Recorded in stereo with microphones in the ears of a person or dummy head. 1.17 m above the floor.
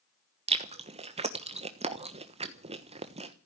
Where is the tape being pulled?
No tape being pulled in this recording.